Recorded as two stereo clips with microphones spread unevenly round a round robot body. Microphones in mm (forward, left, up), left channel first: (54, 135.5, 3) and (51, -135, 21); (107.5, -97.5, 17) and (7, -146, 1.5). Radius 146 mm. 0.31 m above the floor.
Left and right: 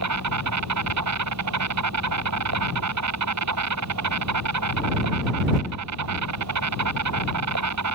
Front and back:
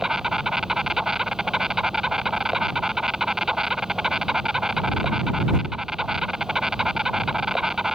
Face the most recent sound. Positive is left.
turn(degrees=-70)